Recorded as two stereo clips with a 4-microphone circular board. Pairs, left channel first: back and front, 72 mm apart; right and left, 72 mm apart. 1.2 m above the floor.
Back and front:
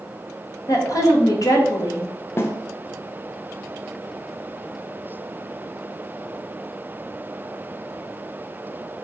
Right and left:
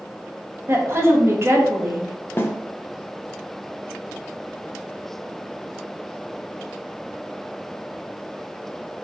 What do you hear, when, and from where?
0.7 s a woman speaking: 145° left, 1.0 m
2.4 s a snare drum: 135° right, 0.6 m